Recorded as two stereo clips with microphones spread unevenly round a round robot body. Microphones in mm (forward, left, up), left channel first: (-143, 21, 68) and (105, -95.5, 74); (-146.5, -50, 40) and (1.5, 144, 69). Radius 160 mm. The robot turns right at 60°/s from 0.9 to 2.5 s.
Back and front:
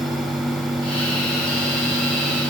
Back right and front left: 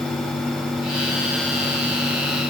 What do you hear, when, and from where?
Only background noise.